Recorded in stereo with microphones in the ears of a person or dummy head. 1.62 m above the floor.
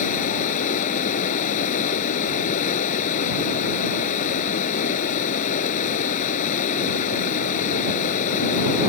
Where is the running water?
55° left (ahead or behind).